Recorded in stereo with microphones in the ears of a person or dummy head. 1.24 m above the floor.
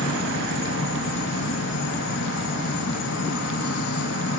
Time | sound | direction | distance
0.0 | an insect | 60° left (ahead or behind) | 1.2 m